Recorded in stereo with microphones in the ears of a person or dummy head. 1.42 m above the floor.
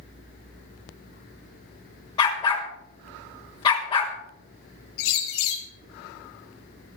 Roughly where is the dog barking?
Left.